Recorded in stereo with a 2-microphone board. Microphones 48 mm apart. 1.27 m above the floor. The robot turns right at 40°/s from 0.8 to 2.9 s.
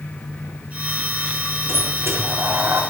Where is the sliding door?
120° right, 1.7 m; by 2.8 s 75° right, 1.7 m.